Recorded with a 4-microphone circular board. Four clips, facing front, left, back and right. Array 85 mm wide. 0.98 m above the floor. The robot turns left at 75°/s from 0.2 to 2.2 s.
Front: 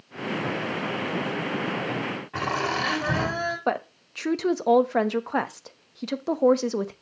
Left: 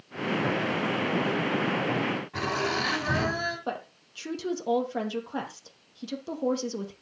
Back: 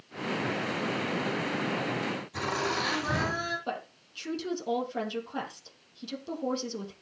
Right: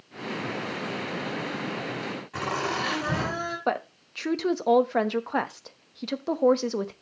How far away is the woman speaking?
About 1.0 m.